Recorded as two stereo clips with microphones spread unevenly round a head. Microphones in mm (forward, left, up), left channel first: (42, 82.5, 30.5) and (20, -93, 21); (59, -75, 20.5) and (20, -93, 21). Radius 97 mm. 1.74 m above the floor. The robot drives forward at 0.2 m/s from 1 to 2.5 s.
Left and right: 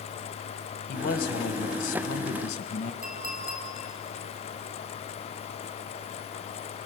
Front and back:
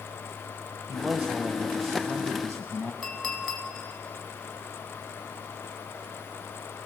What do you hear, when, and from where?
0.9 s a man speaking: 125° left, 1.3 m; by 2.9 s 135° left, 1.4 m
3.0 s a clink: 55° right, 5 m